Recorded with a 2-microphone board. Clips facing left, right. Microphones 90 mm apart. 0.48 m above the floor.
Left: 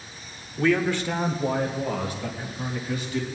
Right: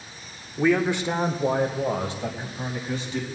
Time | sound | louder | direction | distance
0.6 | a man speaking | right 1 dB | 10° right (ahead or behind) | 1.0 m